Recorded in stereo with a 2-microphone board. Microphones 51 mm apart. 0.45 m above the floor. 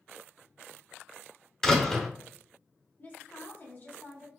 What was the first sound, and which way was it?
A door slam, 10° left (ahead or behind).